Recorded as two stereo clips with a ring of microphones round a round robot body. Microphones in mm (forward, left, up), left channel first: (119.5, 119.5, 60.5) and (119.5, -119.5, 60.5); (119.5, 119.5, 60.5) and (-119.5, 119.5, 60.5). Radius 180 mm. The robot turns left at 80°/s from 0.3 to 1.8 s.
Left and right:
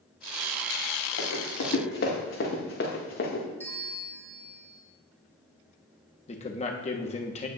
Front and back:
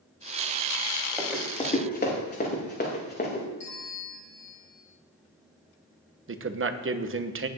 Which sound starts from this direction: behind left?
A man speaking, at 6.3 s.